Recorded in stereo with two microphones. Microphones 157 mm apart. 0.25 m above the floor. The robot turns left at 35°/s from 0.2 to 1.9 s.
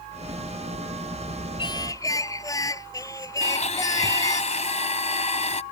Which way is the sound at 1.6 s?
30° left (ahead or behind).